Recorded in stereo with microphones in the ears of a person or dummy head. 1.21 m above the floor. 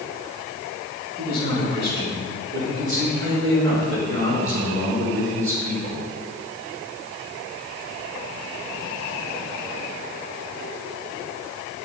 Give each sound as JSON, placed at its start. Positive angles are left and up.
{"t": 1.2, "sound": "a man speaking", "side_deg": -45, "distance_m": 3.5}